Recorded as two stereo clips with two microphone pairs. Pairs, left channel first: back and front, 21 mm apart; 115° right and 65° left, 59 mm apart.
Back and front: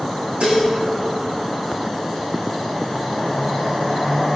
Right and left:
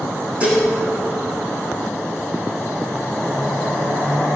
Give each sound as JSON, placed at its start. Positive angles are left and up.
{"t": 0.4, "sound": "dishes clattering", "azimuth_deg": -5, "distance_m": 5.5}